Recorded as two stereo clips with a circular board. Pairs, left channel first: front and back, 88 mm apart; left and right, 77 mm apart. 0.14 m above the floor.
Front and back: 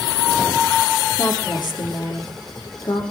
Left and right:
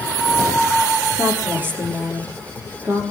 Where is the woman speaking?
30° right, 6.5 m.